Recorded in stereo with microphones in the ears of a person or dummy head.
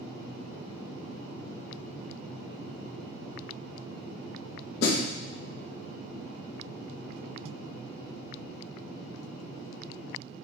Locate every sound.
4.8 s a snare drum: 60° left (ahead or behind), 1.1 m